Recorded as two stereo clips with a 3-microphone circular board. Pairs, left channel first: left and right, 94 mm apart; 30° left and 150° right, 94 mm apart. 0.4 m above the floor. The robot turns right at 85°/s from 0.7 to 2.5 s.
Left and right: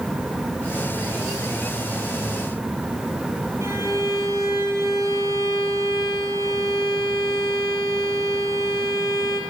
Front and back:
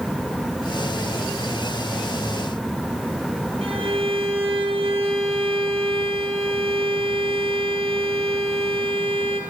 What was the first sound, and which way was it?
A violin, 150° right.